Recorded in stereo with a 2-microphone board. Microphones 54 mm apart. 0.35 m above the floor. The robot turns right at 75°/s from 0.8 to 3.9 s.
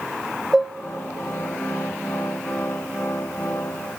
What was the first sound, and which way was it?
Dishes clattering, 10° right (ahead or behind).